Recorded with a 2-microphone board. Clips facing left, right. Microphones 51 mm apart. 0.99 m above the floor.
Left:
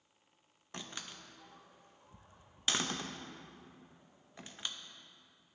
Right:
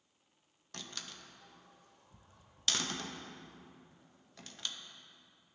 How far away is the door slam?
About 0.5 m.